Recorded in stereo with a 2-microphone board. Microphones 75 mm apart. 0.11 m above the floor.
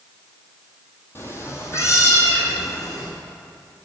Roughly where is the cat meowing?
Left.